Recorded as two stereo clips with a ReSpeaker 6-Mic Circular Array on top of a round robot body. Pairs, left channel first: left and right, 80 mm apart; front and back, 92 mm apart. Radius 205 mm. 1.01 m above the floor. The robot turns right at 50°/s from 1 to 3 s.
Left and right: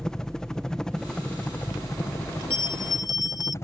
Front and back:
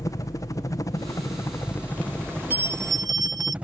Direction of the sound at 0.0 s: 15° left.